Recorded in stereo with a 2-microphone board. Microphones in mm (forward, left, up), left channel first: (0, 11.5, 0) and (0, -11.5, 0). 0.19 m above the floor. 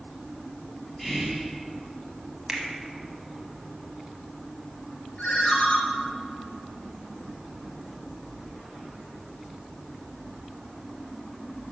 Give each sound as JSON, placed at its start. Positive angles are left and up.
{"t": 1.0, "sound": "whispering", "side_deg": 10, "distance_m": 1.1}
{"t": 2.5, "sound": "a finger snap", "side_deg": -20, "distance_m": 1.1}
{"t": 5.2, "sound": "a ringtone", "side_deg": 65, "distance_m": 1.9}